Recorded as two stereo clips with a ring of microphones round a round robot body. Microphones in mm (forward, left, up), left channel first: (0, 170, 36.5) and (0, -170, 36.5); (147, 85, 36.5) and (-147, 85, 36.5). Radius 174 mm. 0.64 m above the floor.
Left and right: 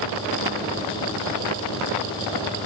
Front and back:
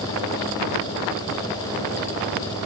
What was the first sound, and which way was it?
Only background noise.